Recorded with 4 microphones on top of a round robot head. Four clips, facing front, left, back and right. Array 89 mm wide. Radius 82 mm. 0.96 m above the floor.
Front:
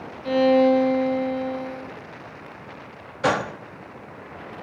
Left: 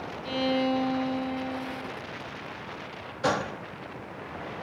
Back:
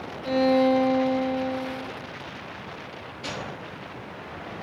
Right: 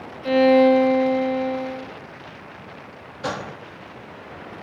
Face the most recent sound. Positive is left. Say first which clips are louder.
# left 2 dB, front 13 dB
turn(degrees=5)